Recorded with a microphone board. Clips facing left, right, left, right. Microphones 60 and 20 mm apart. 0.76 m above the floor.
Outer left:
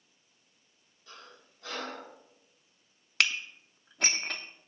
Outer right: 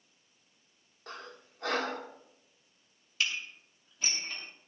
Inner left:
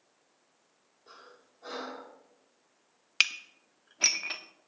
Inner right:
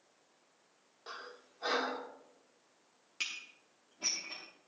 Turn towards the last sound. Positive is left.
turn(degrees=80)